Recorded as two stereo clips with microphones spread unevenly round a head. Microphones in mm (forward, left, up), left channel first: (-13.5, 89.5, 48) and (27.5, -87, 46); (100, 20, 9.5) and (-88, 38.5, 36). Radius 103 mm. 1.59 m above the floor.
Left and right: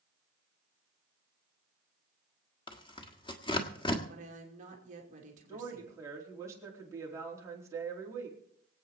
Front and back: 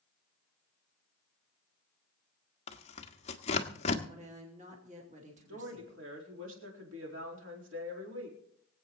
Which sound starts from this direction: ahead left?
Tearing paper, at 2.7 s.